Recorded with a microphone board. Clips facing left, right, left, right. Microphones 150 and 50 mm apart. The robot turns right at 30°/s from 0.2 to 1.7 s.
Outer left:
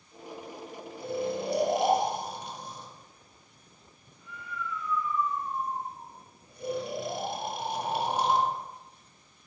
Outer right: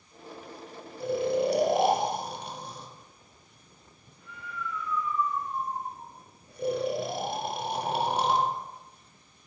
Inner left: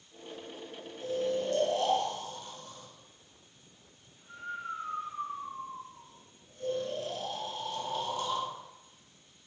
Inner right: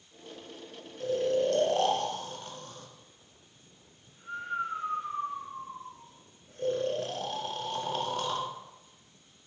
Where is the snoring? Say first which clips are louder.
Outer right 5 dB, inner right 4 dB; 85° right, 0.6 m; by 9.5 s 65° right (ahead or behind), 0.6 m.